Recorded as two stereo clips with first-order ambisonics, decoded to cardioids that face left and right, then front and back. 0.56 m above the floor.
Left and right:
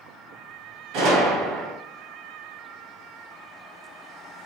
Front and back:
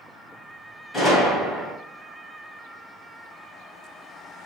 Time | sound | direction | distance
0.9 | a gunshot | 70° right | 1.6 m